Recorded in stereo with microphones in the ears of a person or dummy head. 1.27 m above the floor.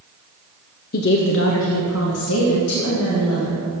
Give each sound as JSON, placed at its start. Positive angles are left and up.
{"t": 0.9, "sound": "a woman speaking", "side_deg": 45, "distance_m": 0.5}